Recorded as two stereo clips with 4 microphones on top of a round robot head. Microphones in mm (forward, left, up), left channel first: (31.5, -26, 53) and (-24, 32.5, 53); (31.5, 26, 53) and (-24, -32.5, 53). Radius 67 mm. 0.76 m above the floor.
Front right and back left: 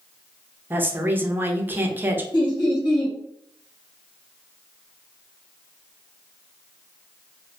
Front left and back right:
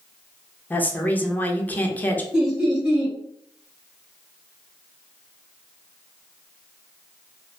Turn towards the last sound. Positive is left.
turn(degrees=-55)